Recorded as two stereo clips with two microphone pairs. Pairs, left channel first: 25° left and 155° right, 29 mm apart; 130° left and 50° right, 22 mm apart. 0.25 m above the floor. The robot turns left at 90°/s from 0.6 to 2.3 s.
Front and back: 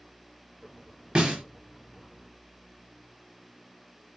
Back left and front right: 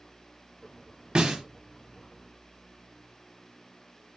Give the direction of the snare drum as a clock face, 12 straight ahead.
3 o'clock.